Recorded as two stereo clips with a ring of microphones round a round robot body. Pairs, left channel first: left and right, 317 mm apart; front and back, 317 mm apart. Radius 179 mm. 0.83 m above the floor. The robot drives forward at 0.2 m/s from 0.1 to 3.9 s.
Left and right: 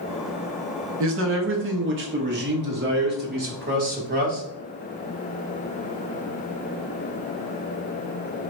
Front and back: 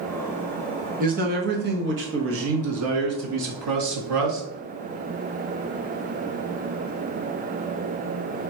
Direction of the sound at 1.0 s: 120° right.